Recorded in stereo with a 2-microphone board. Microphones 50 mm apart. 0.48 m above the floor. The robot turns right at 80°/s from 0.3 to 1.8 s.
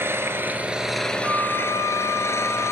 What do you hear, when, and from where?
0.0 s an engine running: 50° right, 2.5 m; by 2.7 s 70° left, 2.5 m
1.2 s a flute: 120° right, 3 m; by 2.7 s 75° right, 3 m